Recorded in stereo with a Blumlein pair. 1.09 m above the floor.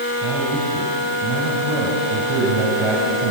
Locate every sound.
0.2 s a man speaking: 15° right, 7.5 m